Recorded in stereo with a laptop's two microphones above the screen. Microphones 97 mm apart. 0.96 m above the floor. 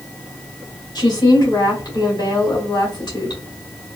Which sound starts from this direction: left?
A woman speaking, at 0.9 s.